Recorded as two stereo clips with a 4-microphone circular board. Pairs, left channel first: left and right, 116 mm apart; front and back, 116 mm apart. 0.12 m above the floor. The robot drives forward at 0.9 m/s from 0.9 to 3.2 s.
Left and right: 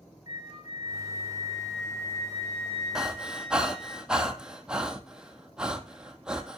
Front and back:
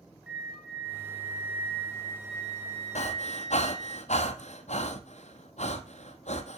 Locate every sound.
0.3 s a flute: 95° left, 4 m; by 4.0 s 120° left, 4.5 m
3.0 s breathing: 5° right, 1.3 m